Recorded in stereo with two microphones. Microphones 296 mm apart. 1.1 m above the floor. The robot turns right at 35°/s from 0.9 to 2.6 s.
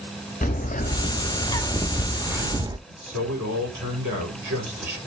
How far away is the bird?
About 0.7 m.